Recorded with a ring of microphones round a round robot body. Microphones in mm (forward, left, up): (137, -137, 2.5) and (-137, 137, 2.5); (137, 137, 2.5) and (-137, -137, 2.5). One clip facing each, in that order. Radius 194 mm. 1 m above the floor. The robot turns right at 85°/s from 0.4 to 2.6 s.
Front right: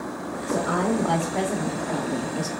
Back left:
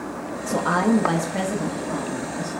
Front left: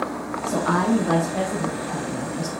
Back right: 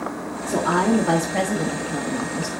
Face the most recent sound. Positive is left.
turn(degrees=-75)